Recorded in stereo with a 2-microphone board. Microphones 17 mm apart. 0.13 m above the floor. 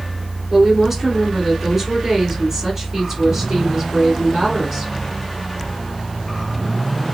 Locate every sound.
0.5 s a woman speaking: 5° right (ahead or behind), 1.9 m